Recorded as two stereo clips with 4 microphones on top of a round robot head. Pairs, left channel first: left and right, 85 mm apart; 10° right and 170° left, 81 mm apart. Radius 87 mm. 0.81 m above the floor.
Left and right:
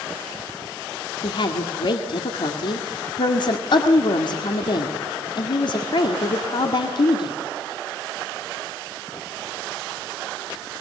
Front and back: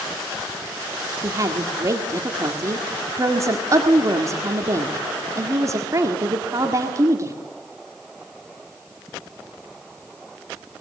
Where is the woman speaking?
120° left, 1.9 m.